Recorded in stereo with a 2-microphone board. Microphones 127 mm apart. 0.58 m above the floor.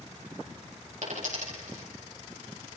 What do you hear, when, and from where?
1.0 s a dropped coin: 75° right (ahead or behind), 6.5 m